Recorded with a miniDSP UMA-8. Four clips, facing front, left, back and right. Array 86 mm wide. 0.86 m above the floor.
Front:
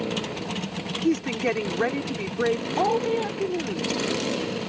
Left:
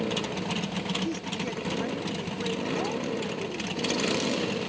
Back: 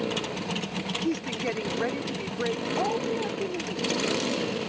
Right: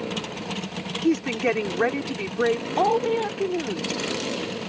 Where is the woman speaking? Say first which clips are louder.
Right 10 dB, front 7 dB; 70° right.